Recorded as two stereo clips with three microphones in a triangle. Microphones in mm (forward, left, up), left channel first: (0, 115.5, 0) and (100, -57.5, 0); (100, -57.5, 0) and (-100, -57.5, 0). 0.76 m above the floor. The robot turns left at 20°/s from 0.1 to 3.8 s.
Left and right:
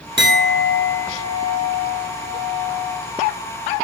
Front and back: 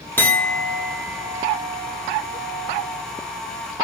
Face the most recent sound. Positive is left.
turn(degrees=-155)